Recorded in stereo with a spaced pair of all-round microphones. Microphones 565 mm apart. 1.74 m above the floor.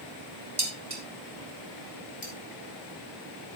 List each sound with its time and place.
0.6 s dishes clattering: 40° right (ahead or behind), 2.5 m
2.2 s cutlery clinking: 35° left (ahead or behind), 4.5 m